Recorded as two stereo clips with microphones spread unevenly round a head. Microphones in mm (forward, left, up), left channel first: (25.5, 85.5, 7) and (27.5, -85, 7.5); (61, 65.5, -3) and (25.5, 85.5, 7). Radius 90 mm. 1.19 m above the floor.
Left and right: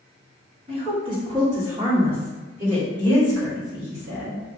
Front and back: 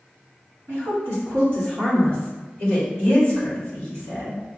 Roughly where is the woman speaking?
Behind right.